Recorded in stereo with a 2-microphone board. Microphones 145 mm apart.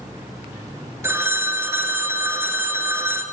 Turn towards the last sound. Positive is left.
turn(degrees=-15)  # may be behind; listen again after turning